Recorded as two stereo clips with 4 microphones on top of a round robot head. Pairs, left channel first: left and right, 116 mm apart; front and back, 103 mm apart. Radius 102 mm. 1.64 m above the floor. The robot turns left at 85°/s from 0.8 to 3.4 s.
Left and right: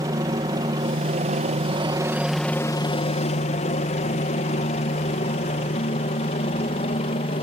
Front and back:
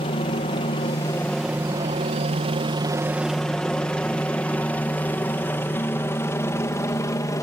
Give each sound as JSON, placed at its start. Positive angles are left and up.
{"t": 0.0, "sound": "a helicopter", "azimuth_deg": -30}